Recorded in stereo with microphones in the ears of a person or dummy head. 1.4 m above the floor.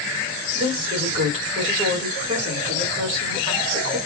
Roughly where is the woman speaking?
Right.